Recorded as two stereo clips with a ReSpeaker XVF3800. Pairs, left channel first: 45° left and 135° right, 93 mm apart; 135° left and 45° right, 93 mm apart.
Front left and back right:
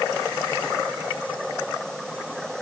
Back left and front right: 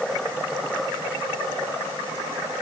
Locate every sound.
Only background noise.